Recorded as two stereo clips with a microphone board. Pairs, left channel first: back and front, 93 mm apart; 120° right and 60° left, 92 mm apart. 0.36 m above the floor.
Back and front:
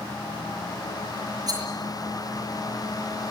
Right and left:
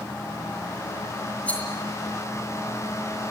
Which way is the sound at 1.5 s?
45° right.